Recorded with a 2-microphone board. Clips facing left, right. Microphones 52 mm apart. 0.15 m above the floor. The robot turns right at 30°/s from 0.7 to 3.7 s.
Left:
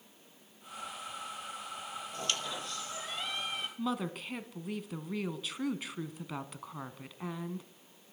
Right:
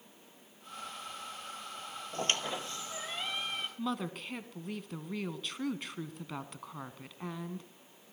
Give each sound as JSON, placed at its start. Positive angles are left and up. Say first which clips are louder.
{"t": 2.1, "sound": "a squeak", "louder": "right 4 dB", "azimuth_deg": -45, "distance_m": 2.0}
{"t": 3.8, "sound": "a woman speaking", "louder": "left 2 dB", "side_deg": 0, "distance_m": 1.1}